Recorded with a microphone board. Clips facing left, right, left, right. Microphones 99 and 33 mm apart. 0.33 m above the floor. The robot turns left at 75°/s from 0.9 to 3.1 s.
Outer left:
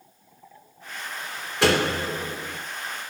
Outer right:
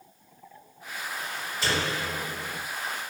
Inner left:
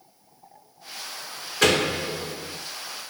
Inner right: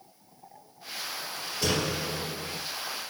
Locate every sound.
1.6 s a door slam: 75° left, 3.5 m; by 2.6 s straight ahead, 3.5 m